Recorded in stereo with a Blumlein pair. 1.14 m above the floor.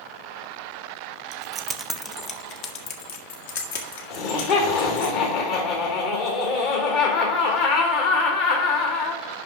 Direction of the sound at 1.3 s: 35° right.